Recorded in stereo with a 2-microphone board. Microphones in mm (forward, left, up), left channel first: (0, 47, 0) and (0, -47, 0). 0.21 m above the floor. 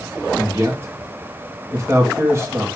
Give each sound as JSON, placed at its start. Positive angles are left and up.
{"t": 0.4, "sound": "a man speaking", "side_deg": -30, "distance_m": 2.0}